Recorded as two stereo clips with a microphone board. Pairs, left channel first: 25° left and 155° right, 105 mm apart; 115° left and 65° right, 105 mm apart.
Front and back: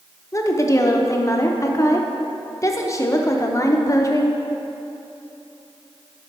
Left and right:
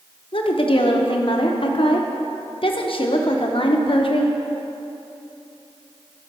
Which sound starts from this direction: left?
A woman speaking, at 0.3 s.